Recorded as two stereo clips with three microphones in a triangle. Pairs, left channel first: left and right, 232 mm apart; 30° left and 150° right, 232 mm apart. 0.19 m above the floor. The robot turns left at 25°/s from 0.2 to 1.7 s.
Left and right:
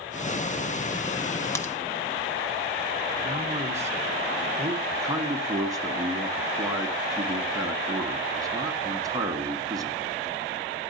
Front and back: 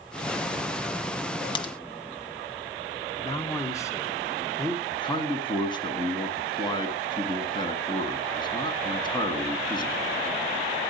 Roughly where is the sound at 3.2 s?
Ahead right.